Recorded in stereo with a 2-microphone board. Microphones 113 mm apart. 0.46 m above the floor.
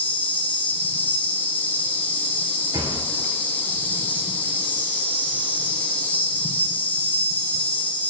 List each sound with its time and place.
0.0 s an insect: 15° left (ahead or behind), 1.3 m
2.7 s a thud: 35° right (ahead or behind), 2 m